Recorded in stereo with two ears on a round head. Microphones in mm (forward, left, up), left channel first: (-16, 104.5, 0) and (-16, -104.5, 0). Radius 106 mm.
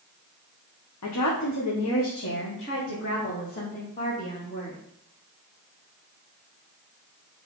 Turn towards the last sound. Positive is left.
turn(degrees=25)  # may be behind; listen again after turning